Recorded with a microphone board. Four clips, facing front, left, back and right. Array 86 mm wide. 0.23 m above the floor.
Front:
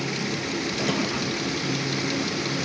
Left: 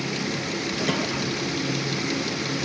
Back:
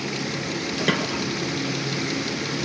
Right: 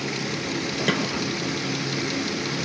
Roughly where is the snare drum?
Behind right.